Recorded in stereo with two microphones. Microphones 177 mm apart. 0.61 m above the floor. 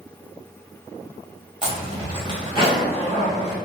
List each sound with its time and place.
1.6 s a zipper: 30° right (ahead or behind), 1.5 m